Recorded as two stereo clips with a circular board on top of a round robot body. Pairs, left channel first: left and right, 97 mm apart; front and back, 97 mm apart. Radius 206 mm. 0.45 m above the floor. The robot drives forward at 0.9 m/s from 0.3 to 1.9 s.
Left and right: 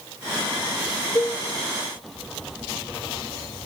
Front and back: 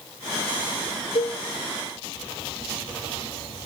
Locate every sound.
1.1 s a cowbell: 20° left, 1.3 m; by 1.4 s 25° left, 1.1 m